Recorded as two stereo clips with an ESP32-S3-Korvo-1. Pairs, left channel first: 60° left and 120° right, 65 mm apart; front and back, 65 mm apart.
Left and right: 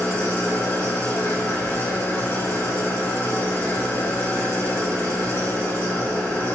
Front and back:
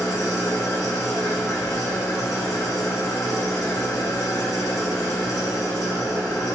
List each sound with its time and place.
0.0 s an engine running: 10° left, 0.9 m